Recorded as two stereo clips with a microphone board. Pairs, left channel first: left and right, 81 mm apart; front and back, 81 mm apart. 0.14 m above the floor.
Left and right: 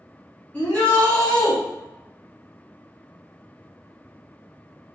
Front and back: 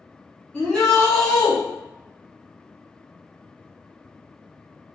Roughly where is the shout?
Ahead left.